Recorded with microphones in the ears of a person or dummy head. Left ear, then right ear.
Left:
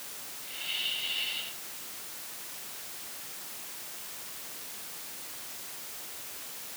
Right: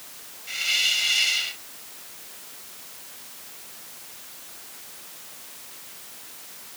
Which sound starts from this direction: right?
A hiss, at 0.5 s.